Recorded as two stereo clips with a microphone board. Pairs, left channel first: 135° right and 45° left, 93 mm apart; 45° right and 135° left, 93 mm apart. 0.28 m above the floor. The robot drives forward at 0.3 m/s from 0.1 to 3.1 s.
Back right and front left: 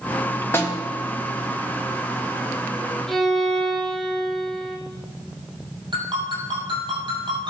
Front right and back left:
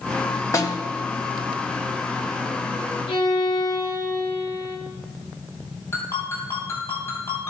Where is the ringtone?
15° left, 4 m.